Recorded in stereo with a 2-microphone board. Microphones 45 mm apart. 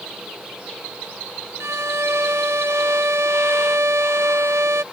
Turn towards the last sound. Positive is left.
turn(degrees=-80)